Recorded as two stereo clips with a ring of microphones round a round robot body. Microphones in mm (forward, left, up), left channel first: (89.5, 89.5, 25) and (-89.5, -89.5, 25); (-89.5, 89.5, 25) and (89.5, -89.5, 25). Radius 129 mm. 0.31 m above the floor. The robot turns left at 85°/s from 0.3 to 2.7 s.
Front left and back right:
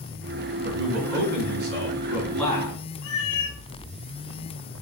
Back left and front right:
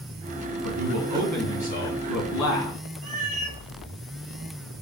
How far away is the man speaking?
About 4 m.